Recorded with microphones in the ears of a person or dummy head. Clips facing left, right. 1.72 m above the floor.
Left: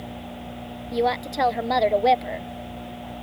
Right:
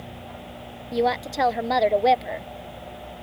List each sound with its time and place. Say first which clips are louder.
0.9 s a woman speaking: even; 5° right (ahead or behind)